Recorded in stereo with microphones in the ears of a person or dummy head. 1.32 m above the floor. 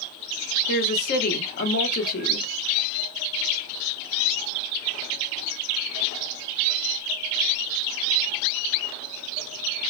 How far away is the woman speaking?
About 0.8 m.